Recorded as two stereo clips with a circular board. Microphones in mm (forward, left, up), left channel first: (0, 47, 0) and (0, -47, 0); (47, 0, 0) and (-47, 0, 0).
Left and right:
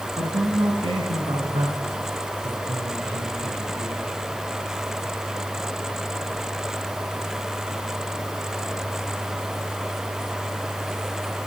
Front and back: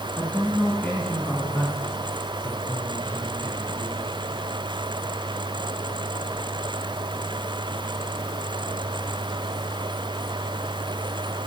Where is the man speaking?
75° right, 3.5 m; by 4.0 s 80° right, 6 m.